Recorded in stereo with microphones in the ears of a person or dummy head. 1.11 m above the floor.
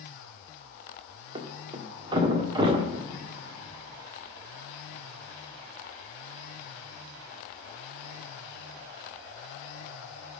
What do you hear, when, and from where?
1.4 s a thud: 30° right (ahead or behind), 1.4 m